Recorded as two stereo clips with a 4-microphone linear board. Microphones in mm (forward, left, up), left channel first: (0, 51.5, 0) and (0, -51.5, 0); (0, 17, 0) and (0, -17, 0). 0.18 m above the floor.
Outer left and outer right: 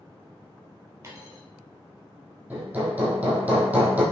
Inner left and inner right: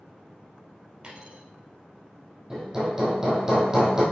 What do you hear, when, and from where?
1.0 s a dropped coin: 30° right (ahead or behind), 2.5 m
2.5 s hammering: 15° right (ahead or behind), 2.5 m